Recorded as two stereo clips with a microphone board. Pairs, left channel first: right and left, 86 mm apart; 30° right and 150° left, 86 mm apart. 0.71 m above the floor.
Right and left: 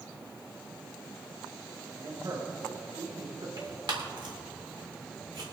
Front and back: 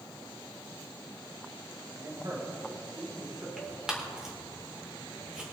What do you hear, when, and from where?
1.9 s a man speaking: 115° left, 3.5 m; by 3.5 s 100° left, 4 m
3.6 s tearing paper: 70° left, 2.5 m